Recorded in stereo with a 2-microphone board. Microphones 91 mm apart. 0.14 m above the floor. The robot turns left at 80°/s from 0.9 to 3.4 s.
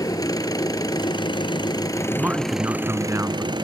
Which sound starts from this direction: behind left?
An engine running, at 0.0 s.